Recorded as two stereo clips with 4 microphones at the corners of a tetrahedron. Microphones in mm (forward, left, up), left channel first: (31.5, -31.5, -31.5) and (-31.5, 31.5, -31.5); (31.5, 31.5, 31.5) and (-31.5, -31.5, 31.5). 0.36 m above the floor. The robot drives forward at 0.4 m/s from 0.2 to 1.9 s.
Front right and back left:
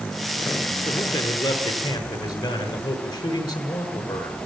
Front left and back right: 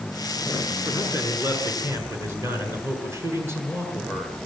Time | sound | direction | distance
0.8 | a man speaking | 70° right | 6 m